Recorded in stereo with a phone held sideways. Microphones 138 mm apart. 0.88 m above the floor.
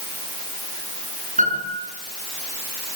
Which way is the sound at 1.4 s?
70° right (ahead or behind).